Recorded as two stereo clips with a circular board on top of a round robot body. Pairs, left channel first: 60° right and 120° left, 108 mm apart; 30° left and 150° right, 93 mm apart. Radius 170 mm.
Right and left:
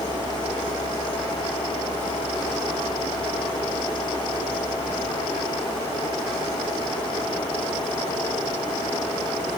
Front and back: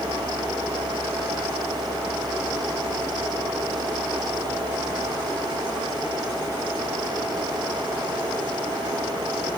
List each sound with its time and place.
Only background noise.